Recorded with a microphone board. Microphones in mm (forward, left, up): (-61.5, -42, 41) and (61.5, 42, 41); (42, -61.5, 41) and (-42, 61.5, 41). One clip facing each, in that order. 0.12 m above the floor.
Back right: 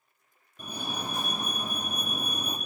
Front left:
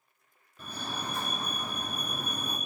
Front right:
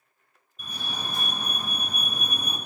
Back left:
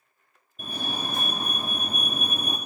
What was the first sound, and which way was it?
A fire alarm, 150° left.